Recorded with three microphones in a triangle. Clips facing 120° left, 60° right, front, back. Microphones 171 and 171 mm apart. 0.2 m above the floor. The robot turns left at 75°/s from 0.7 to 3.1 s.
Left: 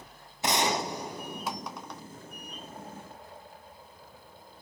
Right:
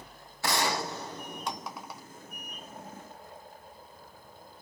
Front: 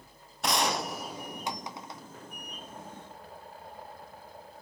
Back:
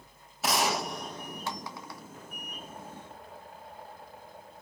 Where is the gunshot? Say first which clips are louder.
Left 2 dB, even; 100° left, 1.5 m; by 2.0 s straight ahead, 1.5 m.